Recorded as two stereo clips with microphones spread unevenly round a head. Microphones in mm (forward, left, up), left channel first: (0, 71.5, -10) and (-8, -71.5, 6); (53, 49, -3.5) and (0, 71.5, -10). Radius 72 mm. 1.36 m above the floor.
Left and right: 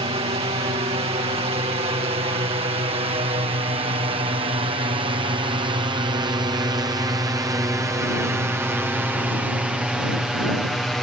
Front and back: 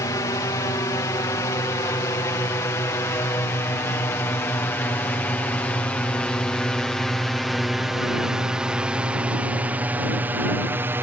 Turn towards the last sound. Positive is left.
turn(degrees=170)